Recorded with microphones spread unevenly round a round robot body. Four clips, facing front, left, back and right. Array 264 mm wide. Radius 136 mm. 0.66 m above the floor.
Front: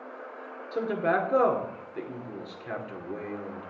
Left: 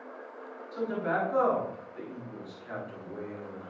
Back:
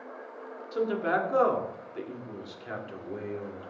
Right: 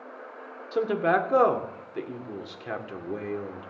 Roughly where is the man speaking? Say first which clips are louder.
Right 7 dB, front 1 dB; right.